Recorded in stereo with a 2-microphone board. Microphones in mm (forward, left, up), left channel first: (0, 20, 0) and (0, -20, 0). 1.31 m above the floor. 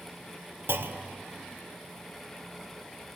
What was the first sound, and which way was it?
A clunk, 65° right (ahead or behind).